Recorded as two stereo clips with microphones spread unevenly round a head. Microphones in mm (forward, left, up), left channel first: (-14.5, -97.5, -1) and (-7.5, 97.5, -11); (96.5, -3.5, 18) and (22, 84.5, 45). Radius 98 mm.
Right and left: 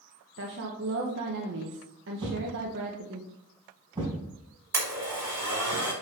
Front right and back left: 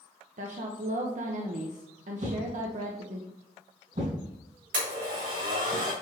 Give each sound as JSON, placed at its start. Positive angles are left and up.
{"t": 0.4, "sound": "a woman speaking", "azimuth_deg": 120, "distance_m": 1.0}
{"t": 2.2, "sound": "a thud", "azimuth_deg": 155, "distance_m": 3.5}
{"t": 4.7, "sound": "a blender", "azimuth_deg": 165, "distance_m": 3.5}